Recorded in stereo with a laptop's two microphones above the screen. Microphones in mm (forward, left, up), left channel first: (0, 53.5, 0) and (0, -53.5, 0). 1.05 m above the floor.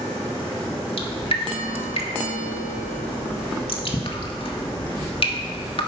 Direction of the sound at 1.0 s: 60° left (ahead or behind).